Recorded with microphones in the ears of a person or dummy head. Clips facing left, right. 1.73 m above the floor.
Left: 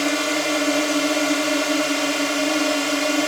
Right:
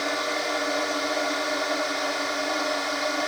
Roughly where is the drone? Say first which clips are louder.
Left 7 dB; left.